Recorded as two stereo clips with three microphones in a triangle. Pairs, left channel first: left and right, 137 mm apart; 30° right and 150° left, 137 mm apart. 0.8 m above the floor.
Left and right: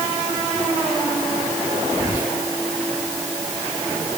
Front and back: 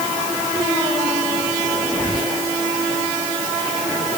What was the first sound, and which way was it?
Whispering, 95° right.